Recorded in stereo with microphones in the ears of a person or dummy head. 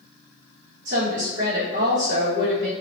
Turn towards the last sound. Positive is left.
turn(degrees=-75)  # may be behind; listen again after turning